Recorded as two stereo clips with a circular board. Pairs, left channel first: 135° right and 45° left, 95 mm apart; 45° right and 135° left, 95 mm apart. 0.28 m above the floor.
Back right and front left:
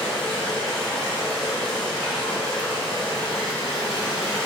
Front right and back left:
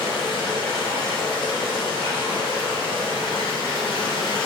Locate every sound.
0.0 s running water: 45° right, 1.5 m